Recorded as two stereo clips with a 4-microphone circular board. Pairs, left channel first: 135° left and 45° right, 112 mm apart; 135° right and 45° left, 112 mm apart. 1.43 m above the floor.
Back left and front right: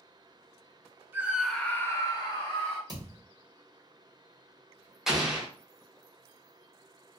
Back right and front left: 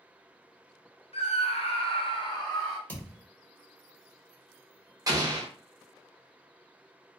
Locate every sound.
1.1 s a scream: 120° right, 0.6 m; by 2.8 s 170° left, 1.0 m
2.9 s a thud: 75° right, 1.4 m
5.1 s an explosion: 40° left, 0.7 m